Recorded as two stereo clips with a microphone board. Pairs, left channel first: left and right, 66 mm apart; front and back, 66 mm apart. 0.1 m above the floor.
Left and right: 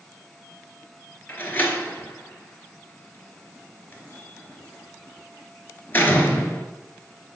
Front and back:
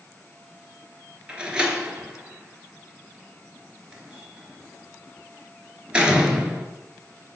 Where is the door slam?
115° left, 0.9 m.